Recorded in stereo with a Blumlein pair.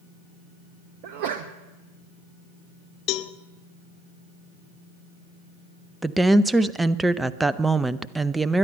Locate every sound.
1.0 s a sneeze: 45° right, 0.8 m
3.1 s a cowbell: 40° left, 0.6 m
6.0 s a woman speaking: 5° right, 0.5 m